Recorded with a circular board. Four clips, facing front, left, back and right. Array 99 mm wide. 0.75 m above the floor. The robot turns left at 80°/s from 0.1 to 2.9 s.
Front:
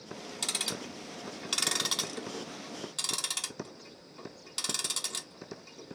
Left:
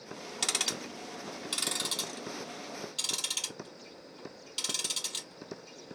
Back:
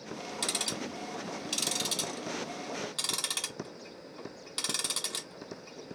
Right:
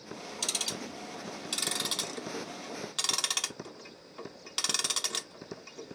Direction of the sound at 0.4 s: 100° left.